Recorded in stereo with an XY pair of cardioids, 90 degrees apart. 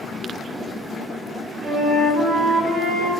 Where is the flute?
55° right, 3 m.